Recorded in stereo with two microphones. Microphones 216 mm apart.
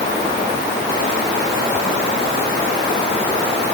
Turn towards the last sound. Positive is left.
No sound to turn to.